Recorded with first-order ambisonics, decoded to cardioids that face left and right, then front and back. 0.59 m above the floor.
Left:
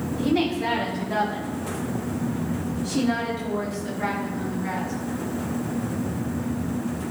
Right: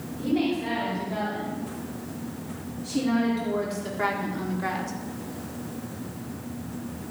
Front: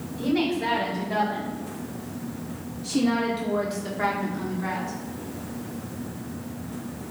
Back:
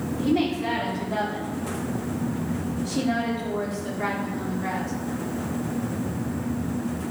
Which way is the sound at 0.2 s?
45° left.